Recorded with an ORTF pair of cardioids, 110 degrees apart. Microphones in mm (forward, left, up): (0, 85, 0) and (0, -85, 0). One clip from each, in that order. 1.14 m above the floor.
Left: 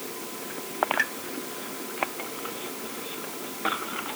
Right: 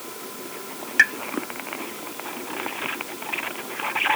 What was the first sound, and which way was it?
A pop, 60° right.